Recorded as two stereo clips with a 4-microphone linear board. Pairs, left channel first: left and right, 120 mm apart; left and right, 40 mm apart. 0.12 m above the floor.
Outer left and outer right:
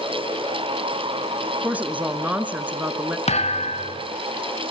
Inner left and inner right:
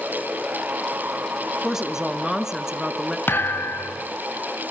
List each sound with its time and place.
1.6 s a woman speaking: 15° right (ahead or behind), 1.2 m
3.3 s a thud: 65° left (ahead or behind), 1.8 m